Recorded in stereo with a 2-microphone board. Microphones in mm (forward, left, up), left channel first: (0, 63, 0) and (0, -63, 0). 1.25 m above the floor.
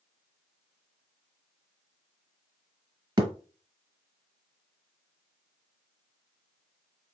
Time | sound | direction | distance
3.2 | a thud | 30° right (ahead or behind) | 1.4 m